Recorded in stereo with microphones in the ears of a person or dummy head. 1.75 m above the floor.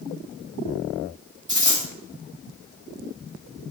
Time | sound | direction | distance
1.5 | a dropped coin | 25° right (ahead or behind) | 2.0 m